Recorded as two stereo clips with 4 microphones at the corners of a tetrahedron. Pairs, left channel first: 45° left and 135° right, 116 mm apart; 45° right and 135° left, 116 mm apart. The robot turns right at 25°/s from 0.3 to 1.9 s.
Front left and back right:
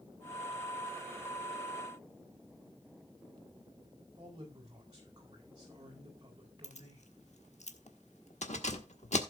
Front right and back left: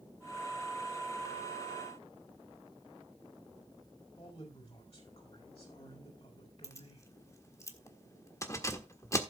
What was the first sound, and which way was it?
A man speaking, 80° right.